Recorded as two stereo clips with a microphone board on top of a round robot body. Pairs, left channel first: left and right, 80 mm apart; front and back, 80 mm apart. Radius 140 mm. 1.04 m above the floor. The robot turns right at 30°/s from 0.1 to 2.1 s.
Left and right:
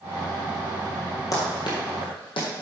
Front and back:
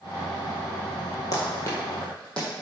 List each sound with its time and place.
1.3 s running footsteps: 45° left, 1.7 m; by 2.5 s 80° left, 2.5 m